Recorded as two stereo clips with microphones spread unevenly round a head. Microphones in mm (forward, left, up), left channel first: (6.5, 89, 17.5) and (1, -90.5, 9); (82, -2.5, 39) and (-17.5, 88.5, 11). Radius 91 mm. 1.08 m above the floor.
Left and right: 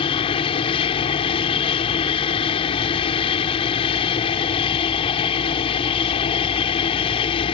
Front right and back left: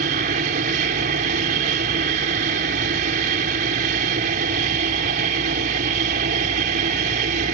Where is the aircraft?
150° left.